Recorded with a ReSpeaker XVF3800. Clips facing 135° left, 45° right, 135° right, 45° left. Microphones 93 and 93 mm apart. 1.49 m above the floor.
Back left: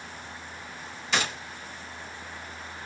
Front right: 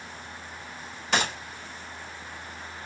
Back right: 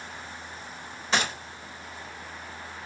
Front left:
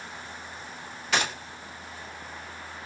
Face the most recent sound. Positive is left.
turn(degrees=-75)